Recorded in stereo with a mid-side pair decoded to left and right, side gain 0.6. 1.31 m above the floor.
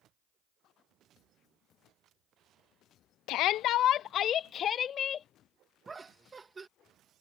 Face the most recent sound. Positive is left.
turn(degrees=-25)